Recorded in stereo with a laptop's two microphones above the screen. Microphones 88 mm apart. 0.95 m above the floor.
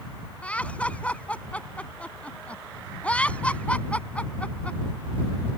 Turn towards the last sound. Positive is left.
turn(degrees=15)  # may be behind; listen again after turning